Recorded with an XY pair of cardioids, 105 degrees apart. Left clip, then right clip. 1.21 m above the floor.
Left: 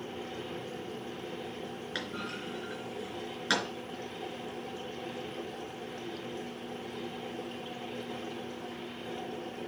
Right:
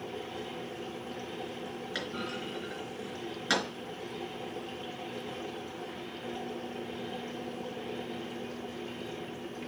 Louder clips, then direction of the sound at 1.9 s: Right 1 dB; 10° left.